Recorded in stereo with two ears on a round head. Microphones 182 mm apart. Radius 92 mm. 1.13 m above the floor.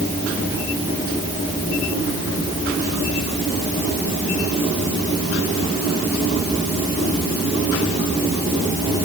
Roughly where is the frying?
No frying in this recording.